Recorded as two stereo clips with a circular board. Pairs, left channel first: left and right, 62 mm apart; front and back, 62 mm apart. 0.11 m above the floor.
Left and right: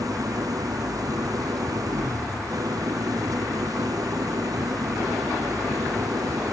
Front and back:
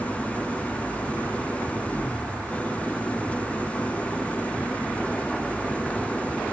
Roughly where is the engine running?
Right.